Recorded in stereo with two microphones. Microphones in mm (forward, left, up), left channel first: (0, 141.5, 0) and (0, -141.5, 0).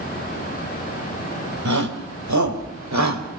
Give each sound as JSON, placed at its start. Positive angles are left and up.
{"t": 1.6, "sound": "a shout", "side_deg": -75, "distance_m": 4.5}